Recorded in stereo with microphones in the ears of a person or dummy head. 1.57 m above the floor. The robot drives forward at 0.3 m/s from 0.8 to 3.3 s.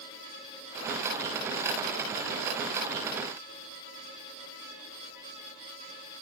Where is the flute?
No flute in this recording.